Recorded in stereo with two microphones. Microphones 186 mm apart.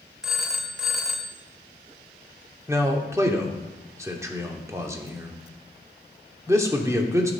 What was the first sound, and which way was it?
A phone ringing, 5° right (ahead or behind).